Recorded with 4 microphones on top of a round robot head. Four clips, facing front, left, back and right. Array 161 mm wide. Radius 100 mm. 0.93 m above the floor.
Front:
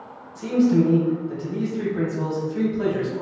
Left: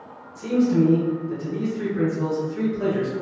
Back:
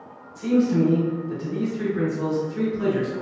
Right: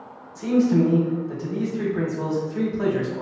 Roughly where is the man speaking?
Ahead right.